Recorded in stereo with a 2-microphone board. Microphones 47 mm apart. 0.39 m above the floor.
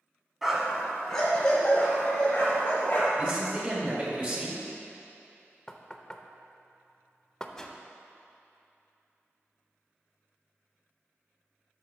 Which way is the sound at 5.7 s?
15° left (ahead or behind).